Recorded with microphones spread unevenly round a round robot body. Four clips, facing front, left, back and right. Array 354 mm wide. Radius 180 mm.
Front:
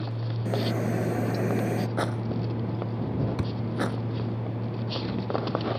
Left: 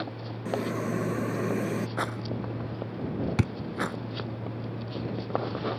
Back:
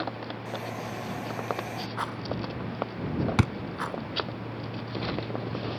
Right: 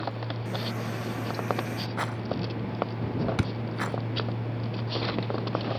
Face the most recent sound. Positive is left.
turn(degrees=160)